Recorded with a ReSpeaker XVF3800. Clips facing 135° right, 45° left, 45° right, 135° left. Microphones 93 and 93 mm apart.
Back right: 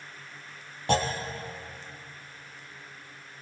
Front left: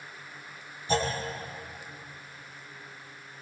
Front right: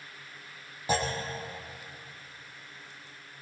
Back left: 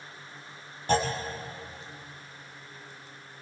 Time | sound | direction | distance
0.9 | a clunk | 125° right | 4.5 m